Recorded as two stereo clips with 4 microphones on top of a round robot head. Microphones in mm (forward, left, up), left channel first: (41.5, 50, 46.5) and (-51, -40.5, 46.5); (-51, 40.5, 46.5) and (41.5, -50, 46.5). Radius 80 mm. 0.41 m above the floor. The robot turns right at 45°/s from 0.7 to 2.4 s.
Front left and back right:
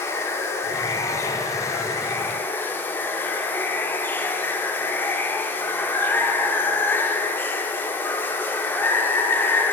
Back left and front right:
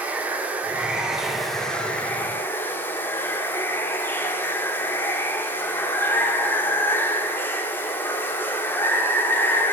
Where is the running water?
15° left, 0.9 m; by 9.7 s 90° left, 0.9 m.